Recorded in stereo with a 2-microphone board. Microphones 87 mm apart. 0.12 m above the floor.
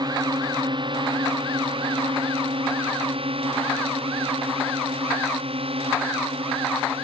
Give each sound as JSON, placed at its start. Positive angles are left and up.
{"t": 0.0, "sound": "a drone", "side_deg": -50}